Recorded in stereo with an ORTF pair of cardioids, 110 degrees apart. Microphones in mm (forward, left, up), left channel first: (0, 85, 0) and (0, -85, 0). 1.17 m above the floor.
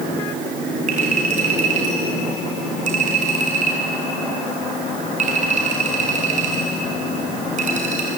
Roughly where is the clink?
Ahead right.